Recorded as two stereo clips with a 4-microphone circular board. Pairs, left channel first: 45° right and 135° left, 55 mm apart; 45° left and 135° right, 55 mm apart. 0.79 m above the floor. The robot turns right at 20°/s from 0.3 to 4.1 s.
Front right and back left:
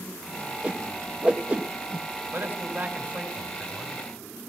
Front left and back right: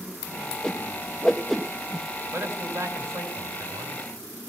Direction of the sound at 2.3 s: 175° right.